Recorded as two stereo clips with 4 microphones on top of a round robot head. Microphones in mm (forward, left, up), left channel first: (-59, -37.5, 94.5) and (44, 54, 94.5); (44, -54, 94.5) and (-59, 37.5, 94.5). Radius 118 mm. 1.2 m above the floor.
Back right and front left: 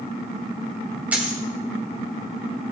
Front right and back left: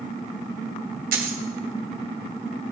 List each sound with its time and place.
1.1 s a dropped coin: 120° left, 1.9 m